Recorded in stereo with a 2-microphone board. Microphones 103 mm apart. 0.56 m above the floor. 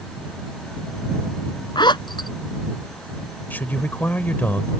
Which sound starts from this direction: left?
A zipper, at 1.8 s.